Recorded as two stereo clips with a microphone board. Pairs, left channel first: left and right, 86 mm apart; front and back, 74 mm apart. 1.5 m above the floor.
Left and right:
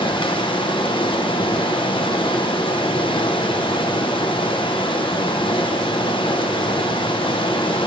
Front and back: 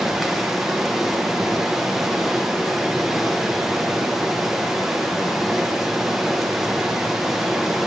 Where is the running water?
95° left, 0.9 m.